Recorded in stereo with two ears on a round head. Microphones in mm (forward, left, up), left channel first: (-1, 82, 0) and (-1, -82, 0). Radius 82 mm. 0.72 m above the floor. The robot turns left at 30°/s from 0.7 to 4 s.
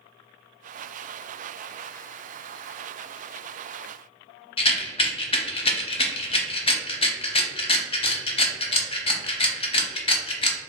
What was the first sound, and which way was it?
A rattle, 30° left (ahead or behind).